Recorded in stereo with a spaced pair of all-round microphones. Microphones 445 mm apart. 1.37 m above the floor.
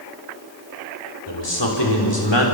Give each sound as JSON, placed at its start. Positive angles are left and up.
{"t": 1.3, "sound": "a man speaking", "side_deg": 70, "distance_m": 4.5}